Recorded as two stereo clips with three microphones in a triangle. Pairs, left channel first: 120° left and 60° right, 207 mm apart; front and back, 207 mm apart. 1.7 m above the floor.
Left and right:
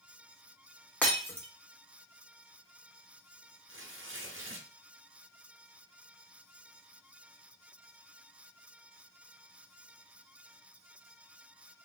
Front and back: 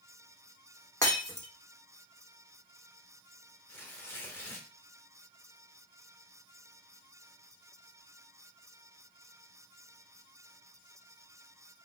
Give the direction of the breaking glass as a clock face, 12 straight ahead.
10 o'clock.